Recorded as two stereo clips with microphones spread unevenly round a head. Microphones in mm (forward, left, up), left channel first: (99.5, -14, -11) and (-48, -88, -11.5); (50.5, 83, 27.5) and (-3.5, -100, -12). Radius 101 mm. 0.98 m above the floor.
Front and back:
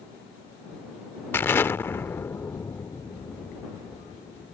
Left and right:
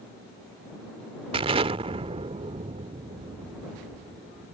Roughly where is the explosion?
Ahead right.